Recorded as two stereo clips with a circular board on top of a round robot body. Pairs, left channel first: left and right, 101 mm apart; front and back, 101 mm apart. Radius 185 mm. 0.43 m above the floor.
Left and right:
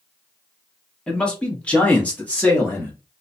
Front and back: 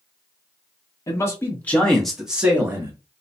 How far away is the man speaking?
About 1.3 m.